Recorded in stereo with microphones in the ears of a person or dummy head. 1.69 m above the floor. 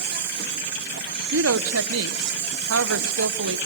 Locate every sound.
0.0 s an insect: 55° right (ahead or behind), 2.5 m
1.3 s a woman speaking: 65° right (ahead or behind), 1.0 m